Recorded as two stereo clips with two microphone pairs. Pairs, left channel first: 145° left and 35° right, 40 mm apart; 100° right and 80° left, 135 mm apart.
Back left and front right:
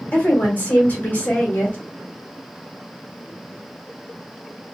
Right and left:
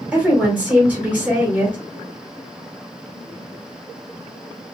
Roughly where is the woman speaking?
Behind left.